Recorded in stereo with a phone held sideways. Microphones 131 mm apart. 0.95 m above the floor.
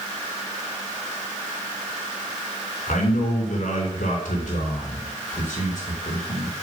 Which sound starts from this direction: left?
A man speaking, at 2.9 s.